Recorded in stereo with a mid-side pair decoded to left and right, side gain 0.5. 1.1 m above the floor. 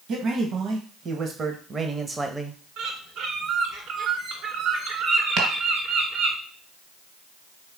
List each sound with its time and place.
0.1 s a man speaking: 60° right, 1.6 m; by 2.6 s 5° right, 0.8 m
2.8 s a bird: 65° right, 2 m
5.4 s chopping: 70° right, 2.5 m